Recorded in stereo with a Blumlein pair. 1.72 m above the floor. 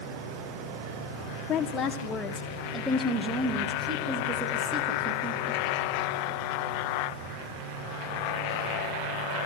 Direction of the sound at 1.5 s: 25° left.